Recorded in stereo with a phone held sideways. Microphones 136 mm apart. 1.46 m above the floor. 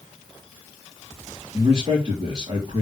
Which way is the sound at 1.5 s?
40° right (ahead or behind).